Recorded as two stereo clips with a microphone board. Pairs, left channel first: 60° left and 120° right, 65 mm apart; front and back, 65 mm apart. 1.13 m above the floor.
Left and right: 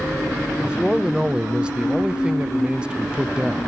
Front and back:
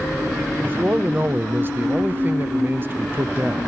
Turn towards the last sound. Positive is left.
turn(degrees=180)